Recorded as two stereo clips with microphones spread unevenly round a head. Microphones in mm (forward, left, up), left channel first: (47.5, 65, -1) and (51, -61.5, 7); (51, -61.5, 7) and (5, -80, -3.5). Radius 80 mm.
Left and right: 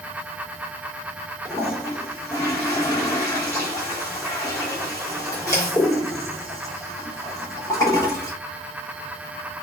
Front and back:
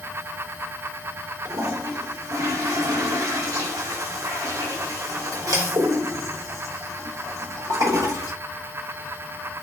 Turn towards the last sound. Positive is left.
turn(degrees=165)